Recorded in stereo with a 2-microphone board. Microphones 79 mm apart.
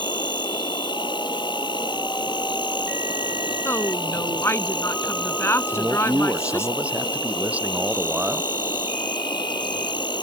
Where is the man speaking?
15° right (ahead or behind).